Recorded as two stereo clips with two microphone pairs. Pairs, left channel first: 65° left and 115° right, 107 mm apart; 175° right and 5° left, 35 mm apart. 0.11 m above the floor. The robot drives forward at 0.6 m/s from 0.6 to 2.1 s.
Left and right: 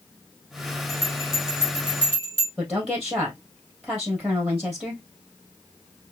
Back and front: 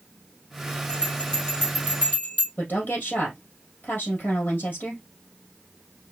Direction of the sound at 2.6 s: 155° left.